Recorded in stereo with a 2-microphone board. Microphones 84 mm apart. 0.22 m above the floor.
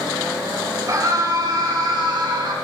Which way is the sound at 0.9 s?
45° right (ahead or behind).